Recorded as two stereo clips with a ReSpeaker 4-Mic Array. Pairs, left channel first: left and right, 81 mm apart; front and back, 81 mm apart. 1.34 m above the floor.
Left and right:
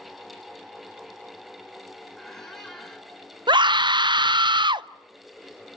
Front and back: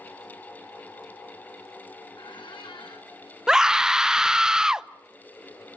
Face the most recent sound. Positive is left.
turn(degrees=-95)